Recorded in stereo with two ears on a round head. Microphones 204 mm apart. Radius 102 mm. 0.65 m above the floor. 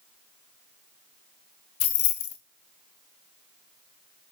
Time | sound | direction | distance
1.8 | keys jangling | 65° left (ahead or behind) | 0.8 m